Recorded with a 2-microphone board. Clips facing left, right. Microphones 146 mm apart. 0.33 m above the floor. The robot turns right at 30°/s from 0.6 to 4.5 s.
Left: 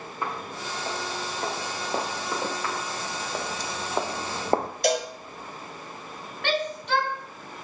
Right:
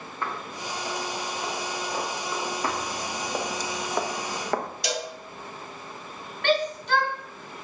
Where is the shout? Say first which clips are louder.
Right 3 dB; centre (ahead or behind), 4.5 m.